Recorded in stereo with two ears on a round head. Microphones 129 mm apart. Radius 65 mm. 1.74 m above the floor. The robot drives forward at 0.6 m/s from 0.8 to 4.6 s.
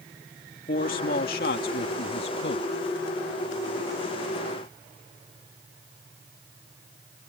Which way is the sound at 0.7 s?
55° left (ahead or behind).